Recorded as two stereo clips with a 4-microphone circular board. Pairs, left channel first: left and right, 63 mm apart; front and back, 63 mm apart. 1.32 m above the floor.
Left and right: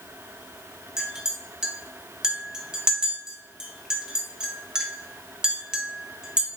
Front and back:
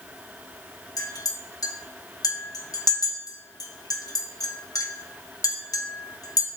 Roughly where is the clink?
Ahead.